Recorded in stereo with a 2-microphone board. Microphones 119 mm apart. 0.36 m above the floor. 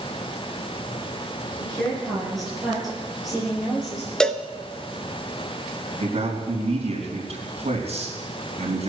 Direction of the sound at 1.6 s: 5° left (ahead or behind).